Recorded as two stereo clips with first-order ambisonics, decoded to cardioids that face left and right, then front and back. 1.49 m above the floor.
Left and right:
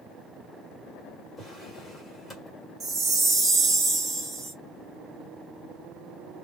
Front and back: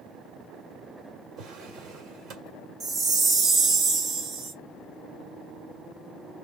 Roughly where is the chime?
Behind right.